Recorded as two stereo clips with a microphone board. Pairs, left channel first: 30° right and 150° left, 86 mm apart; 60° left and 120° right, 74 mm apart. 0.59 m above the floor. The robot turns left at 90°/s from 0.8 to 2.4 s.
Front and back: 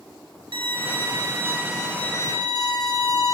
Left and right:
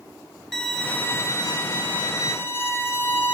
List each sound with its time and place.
0.5 s a violin: 145° left, 1.4 m; by 3.3 s straight ahead, 1.4 m